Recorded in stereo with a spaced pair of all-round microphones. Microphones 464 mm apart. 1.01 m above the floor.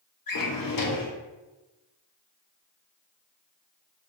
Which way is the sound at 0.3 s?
45° left (ahead or behind).